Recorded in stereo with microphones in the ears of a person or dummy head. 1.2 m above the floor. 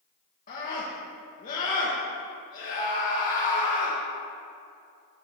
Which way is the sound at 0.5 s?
45° left (ahead or behind).